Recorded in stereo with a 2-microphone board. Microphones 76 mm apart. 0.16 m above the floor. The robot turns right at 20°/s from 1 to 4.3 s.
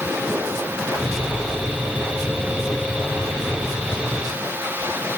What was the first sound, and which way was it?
Only background noise.